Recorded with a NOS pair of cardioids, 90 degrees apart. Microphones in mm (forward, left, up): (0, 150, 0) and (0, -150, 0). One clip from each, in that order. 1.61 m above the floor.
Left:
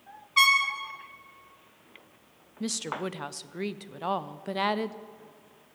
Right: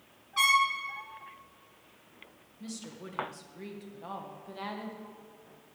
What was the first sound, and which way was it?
A trumpet, 45° left.